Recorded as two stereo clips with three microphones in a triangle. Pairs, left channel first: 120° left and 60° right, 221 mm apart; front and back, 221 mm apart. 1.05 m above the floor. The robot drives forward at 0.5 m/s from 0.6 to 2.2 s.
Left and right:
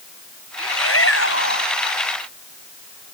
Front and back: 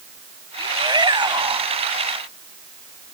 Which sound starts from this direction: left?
A shout, at 0.6 s.